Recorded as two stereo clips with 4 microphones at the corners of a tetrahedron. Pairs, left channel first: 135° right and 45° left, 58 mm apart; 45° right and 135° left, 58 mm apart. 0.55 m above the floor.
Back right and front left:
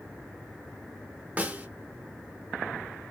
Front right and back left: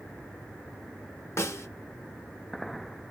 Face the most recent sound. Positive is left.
turn(degrees=-20)